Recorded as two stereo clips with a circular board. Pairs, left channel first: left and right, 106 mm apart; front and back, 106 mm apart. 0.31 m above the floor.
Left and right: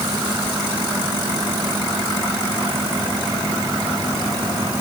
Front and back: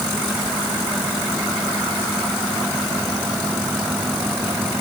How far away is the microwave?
No microwave in this recording.